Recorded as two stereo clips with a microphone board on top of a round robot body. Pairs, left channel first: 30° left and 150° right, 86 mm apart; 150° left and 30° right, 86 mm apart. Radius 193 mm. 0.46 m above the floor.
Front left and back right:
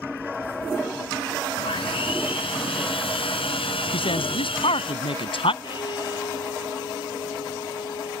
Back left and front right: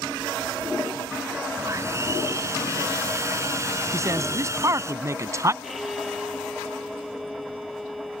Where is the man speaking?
25° left.